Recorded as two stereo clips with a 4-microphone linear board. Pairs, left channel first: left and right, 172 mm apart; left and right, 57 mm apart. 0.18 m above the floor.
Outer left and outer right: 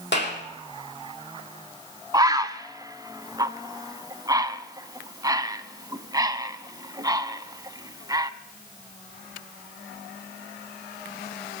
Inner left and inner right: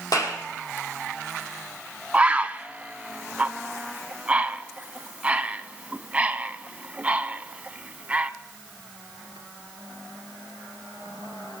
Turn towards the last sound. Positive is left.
turn(degrees=-20)  # may be behind; listen again after turning